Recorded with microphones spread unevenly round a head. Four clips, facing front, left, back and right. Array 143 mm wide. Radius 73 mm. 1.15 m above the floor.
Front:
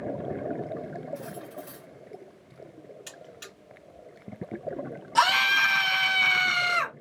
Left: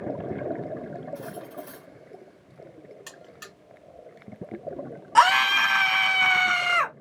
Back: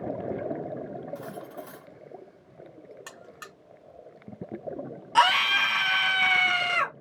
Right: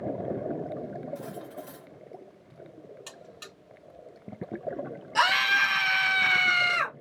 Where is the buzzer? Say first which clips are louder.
Left 1 dB, back 1 dB; straight behind, 2.5 m.